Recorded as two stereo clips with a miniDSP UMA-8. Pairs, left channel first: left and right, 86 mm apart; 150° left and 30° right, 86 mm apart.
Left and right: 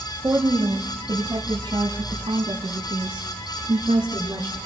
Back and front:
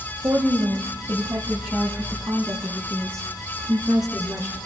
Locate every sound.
0.2 s a woman speaking: 65° right, 1.1 m; by 4.6 s 95° right, 3.5 m